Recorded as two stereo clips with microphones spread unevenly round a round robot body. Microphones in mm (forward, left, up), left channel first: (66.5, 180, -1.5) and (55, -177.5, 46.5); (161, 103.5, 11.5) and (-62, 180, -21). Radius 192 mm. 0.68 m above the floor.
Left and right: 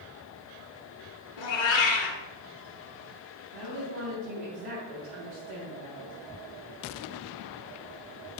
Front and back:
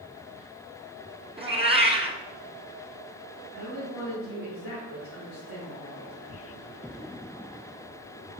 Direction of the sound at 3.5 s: 60° right.